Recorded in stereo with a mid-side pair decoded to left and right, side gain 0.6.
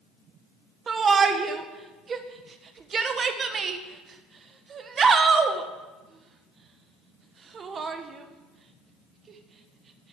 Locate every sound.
0.9 s a shout: 35° right, 1.2 m